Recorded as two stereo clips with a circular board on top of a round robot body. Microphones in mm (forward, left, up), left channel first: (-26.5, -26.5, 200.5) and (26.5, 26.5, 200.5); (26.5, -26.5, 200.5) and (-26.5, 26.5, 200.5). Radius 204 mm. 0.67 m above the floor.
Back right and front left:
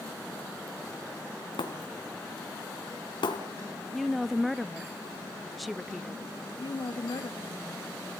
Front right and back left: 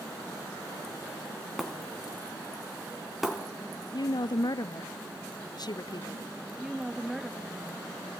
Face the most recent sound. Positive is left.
turn(degrees=-140)